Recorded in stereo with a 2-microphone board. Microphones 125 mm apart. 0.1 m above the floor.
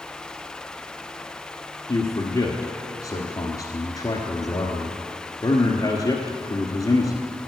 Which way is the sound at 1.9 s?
30° left (ahead or behind).